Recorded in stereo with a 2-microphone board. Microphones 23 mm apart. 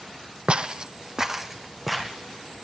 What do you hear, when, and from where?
0.5 s footsteps: 60° right (ahead or behind), 1.1 m; by 2.2 s 5° right (ahead or behind), 2.5 m